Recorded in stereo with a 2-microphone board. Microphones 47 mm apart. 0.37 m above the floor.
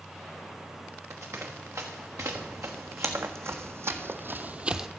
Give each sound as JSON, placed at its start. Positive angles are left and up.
{"t": 1.1, "sound": "running footsteps", "side_deg": -80, "distance_m": 3.0}